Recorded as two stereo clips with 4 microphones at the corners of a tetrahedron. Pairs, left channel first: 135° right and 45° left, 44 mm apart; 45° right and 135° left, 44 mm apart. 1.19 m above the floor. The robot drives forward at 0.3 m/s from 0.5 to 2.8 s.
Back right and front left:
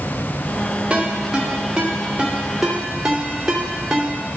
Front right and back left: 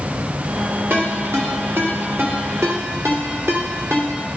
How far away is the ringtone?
About 1.7 m.